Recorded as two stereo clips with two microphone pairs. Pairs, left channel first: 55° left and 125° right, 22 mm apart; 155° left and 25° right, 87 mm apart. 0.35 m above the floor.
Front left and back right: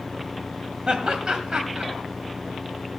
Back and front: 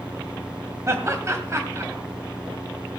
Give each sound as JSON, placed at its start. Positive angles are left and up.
{"t": 0.9, "sound": "laughter", "azimuth_deg": -75, "distance_m": 1.7}